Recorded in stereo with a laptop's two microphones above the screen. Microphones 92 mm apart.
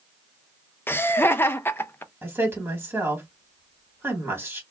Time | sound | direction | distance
0.9 | laughter | 25° left (ahead or behind) | 0.5 m
2.2 | a woman speaking | 25° right (ahead or behind) | 1.4 m